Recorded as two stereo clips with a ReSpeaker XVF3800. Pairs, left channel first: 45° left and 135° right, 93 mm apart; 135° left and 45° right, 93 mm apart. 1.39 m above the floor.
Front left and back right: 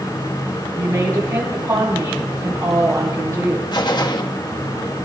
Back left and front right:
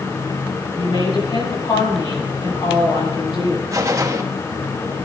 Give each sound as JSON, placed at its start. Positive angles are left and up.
{"t": 0.7, "sound": "a woman speaking", "azimuth_deg": 170, "distance_m": 8.5}
{"t": 3.7, "sound": "a gunshot", "azimuth_deg": 10, "distance_m": 1.3}